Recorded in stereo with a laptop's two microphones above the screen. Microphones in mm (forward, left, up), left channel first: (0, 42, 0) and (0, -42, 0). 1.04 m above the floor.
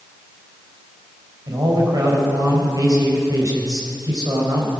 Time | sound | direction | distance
1.5 | a man speaking | 50° right (ahead or behind) | 4.5 m